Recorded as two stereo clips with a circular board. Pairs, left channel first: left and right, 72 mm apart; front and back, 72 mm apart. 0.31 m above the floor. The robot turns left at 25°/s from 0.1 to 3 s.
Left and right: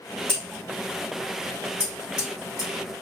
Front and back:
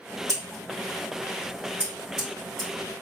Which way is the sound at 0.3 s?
145° left.